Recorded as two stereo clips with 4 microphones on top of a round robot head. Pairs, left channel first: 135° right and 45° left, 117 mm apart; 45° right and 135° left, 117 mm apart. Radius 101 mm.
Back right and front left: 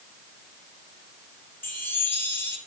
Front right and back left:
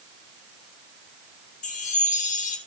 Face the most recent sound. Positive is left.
turn(degrees=-60)